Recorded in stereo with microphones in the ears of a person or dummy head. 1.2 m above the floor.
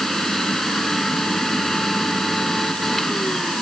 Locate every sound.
0.0 s a machine running: centre (ahead or behind)